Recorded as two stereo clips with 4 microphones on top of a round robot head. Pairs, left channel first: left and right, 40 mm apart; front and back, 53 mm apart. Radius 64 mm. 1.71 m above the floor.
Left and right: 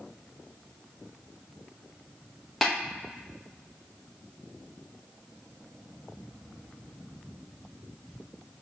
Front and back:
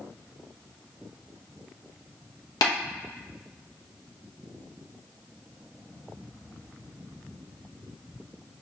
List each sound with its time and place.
2.6 s tapping: 5° left, 0.8 m